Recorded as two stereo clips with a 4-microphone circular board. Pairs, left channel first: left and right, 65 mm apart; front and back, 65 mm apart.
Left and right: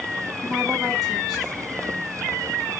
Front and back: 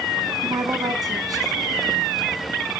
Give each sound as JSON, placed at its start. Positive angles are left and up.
{"t": 0.4, "sound": "a woman speaking", "azimuth_deg": 175, "distance_m": 5.5}